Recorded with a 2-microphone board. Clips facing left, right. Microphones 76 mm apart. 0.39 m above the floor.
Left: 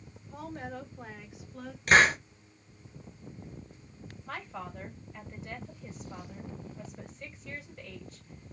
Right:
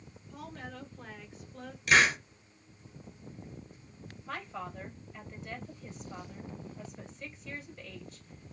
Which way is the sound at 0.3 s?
35° left (ahead or behind).